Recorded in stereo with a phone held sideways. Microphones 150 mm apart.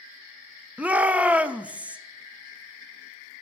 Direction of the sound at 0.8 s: 10° right (ahead or behind).